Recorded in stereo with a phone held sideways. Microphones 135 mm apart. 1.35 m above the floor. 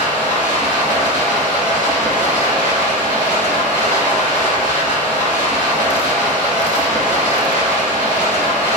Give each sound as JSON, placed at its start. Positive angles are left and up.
{"t": 0.0, "sound": "running water", "side_deg": -80, "distance_m": 1.1}